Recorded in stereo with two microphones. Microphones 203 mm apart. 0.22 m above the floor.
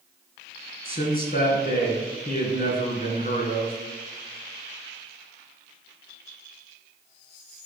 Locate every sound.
0.8 s a man speaking: 50° left (ahead or behind), 2 m